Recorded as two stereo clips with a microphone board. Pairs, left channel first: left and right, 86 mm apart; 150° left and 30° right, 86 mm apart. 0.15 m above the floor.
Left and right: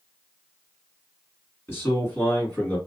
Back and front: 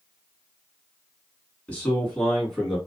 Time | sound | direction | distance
1.7 | a man speaking | 105° left | 1.8 m